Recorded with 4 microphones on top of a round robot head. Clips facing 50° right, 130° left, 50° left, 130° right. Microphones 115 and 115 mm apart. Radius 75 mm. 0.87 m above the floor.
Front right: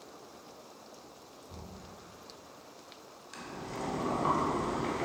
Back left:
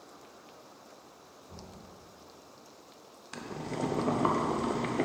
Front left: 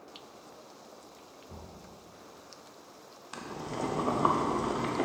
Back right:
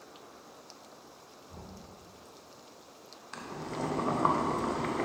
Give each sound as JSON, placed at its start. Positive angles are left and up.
{"t": 1.5, "sound": "knocking", "azimuth_deg": 35, "distance_m": 2.0}
{"t": 3.3, "sound": "boiling", "azimuth_deg": 125, "distance_m": 0.8}